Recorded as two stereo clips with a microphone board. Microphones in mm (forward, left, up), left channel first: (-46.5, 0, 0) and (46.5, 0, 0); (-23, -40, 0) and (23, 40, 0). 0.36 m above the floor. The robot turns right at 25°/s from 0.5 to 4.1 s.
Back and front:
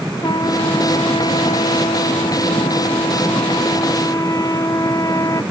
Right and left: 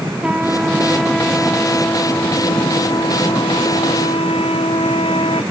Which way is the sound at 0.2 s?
140° left.